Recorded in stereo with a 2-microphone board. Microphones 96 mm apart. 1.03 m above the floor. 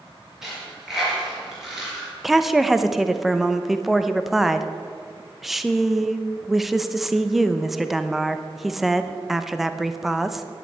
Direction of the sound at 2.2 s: Centre (ahead or behind).